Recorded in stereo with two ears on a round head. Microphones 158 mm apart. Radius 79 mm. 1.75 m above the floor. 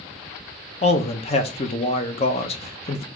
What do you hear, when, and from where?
0.8 s a man speaking: 35° left (ahead or behind), 0.8 m